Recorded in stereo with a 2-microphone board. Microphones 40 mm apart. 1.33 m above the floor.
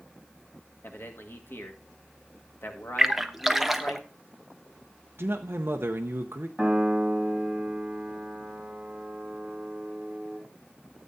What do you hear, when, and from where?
0.8 s a man speaking: 65° left (ahead or behind), 1.8 m
3.0 s a splash: 5° right (ahead or behind), 0.7 m
5.2 s a man speaking: 65° right (ahead or behind), 0.7 m
6.6 s a piano: 5° right (ahead or behind), 4.5 m